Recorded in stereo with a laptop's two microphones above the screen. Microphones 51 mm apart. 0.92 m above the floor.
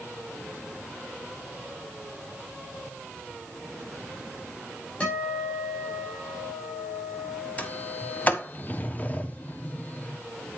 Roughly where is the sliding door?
Left.